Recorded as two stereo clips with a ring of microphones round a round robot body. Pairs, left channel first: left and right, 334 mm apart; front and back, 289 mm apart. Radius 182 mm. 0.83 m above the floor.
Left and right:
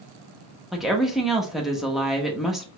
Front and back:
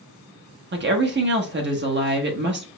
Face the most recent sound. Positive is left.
turn(degrees=180)